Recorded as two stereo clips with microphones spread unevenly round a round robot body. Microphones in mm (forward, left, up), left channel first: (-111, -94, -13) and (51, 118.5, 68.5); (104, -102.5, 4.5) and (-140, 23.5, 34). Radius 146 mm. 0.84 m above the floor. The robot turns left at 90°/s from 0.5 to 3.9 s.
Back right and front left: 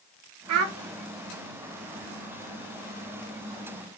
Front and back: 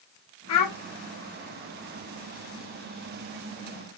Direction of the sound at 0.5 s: 20° left.